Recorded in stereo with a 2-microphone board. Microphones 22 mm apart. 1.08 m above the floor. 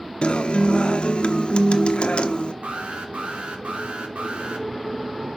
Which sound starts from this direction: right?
An alarm, at 2.6 s.